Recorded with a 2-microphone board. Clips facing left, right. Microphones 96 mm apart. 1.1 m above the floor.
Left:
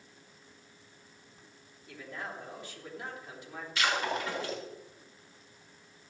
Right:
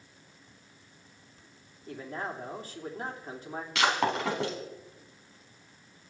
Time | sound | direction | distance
1.9 | a man speaking | 40° right (ahead or behind) | 3.5 m
3.8 | breaking glass | 80° right | 6 m